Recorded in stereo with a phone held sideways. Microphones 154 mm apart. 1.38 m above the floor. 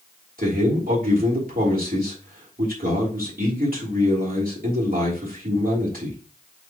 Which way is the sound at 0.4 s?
65° right (ahead or behind).